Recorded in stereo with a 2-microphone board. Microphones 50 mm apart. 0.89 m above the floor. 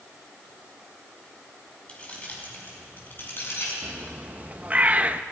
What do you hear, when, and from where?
1.9 s keys jangling: 20° left (ahead or behind), 5 m; by 3.7 s 50° left (ahead or behind), 6.5 m
3.8 s a bird: 30° right (ahead or behind), 0.7 m